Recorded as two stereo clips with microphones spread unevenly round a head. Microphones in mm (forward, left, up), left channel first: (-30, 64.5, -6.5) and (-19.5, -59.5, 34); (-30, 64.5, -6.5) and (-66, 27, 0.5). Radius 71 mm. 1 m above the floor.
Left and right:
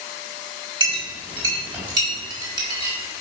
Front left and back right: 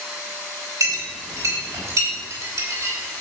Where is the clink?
145° right, 4 m.